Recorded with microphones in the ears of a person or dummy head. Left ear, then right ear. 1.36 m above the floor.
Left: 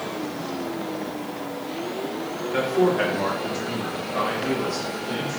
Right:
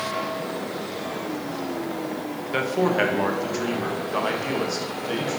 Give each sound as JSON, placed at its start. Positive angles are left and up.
{"t": 2.5, "sound": "a man speaking", "side_deg": -80, "distance_m": 1.7}